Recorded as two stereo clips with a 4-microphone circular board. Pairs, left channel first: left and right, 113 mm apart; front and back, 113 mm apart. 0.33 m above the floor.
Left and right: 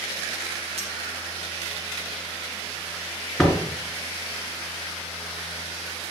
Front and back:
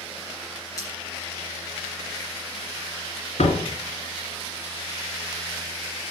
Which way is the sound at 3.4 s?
5° left.